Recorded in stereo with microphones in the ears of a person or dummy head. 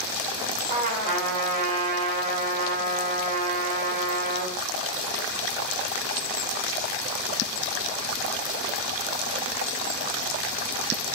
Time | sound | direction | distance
0.7 | a trumpet | 50° right (ahead or behind) | 2.5 m